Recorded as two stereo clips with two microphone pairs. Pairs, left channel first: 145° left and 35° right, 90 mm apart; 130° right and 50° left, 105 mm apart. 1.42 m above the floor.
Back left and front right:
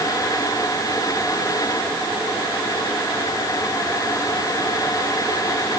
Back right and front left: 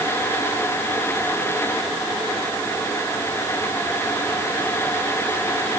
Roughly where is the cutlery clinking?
I don't hear cutlery clinking.